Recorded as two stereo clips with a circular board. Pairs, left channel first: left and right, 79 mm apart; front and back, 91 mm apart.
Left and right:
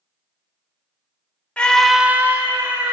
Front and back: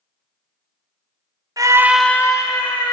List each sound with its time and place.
1.6 s a scream: 160° left, 0.8 m; by 2.9 s 35° right, 1.6 m